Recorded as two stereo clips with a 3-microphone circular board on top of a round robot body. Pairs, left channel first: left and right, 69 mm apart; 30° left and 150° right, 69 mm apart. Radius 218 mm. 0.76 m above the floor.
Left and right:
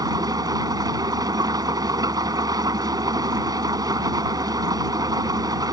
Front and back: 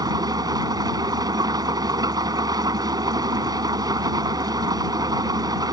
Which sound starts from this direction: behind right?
An engine running, at 0.0 s.